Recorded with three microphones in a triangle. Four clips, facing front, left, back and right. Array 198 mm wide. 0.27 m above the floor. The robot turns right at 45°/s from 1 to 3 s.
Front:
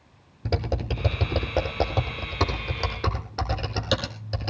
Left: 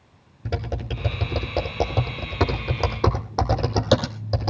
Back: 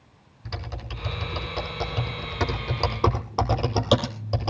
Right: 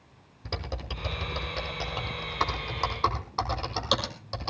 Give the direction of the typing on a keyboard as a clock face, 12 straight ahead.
11 o'clock.